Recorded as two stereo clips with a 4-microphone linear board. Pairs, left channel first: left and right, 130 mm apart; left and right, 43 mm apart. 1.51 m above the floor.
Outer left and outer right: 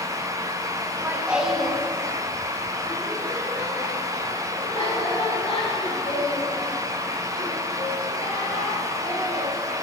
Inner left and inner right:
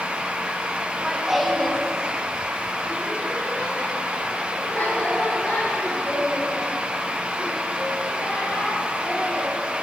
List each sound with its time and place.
0.9 s laughter: 25° right (ahead or behind), 1.5 m; by 9.5 s 60° left (ahead or behind), 8.5 m